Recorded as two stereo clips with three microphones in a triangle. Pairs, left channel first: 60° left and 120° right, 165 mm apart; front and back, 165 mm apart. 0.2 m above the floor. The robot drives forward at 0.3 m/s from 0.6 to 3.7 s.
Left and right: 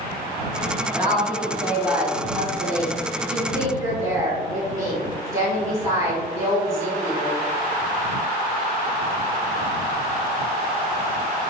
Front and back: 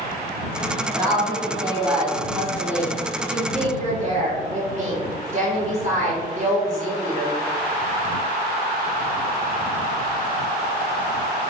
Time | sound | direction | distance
0.9 | a woman speaking | 170° left | 1.4 m